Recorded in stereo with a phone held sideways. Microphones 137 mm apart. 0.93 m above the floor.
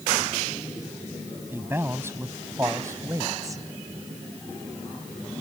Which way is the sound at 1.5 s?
15° right (ahead or behind).